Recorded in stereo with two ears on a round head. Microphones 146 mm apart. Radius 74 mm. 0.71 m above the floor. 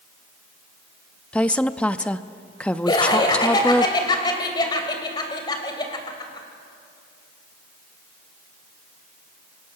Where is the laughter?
25° left (ahead or behind), 3 m.